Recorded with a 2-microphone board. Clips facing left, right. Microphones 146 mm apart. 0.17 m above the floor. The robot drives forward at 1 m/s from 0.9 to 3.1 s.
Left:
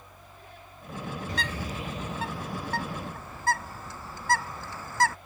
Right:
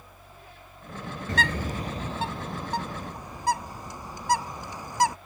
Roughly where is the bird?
Right.